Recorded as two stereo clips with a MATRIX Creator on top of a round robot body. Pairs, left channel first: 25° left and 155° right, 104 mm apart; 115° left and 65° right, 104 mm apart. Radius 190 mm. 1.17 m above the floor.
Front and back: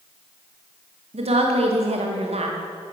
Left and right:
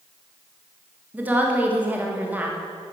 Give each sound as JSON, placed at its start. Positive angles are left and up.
{"t": 1.1, "sound": "a woman speaking", "azimuth_deg": -140, "distance_m": 1.9}